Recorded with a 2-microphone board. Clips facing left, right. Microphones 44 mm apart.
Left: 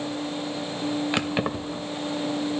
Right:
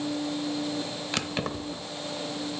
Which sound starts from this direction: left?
Keys jangling, at 1.1 s.